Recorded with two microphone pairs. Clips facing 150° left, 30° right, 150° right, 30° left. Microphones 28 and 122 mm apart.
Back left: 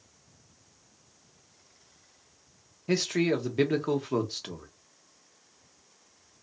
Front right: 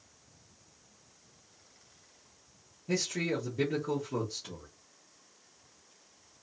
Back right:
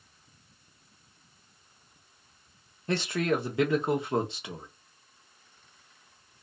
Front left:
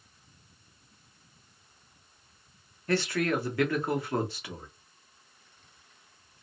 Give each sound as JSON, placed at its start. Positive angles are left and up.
{"t": 2.9, "sound": "a man speaking", "azimuth_deg": 150, "distance_m": 0.8}